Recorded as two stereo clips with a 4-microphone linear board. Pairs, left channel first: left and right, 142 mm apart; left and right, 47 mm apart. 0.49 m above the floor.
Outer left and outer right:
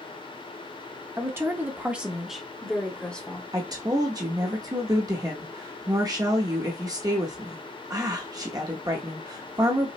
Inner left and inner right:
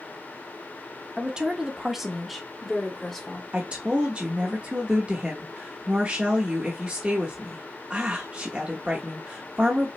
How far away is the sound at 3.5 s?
About 0.7 m.